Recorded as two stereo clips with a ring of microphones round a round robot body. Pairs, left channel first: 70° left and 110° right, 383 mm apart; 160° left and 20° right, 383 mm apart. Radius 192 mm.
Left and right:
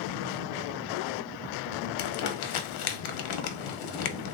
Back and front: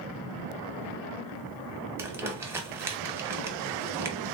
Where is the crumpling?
60° left, 0.6 m.